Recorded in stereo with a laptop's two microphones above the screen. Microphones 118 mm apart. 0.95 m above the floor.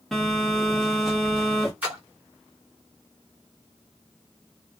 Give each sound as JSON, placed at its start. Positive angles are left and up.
{"t": 0.1, "sound": "a phone buzzing", "side_deg": 0, "distance_m": 1.2}
{"t": 1.8, "sound": "a splash", "side_deg": -15, "distance_m": 1.4}